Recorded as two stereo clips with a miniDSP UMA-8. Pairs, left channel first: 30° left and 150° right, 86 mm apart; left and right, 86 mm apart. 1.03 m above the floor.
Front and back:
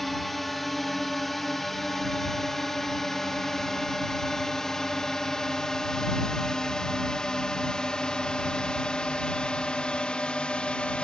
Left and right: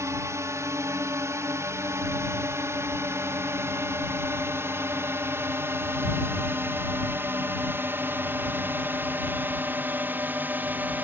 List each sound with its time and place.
0.0 s a drone: 60° right; by 11.0 s 40° right